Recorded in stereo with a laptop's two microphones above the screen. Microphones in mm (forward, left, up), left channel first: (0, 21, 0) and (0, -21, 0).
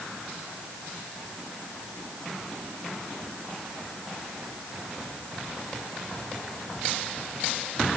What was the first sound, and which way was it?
Only background noise.